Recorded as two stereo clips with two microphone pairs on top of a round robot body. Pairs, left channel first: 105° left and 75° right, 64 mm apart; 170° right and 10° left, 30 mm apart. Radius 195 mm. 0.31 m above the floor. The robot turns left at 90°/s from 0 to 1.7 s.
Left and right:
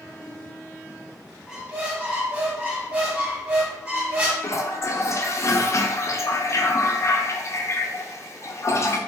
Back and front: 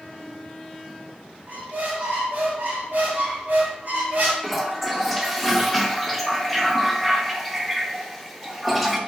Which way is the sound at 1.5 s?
15° left.